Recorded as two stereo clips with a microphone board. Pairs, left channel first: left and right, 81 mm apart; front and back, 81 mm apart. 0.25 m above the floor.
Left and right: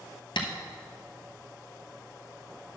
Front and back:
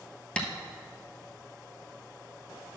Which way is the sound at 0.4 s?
80° left.